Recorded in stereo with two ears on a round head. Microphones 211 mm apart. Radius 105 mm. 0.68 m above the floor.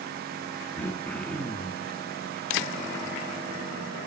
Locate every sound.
0.8 s throat clearing: 5° left (ahead or behind), 0.6 m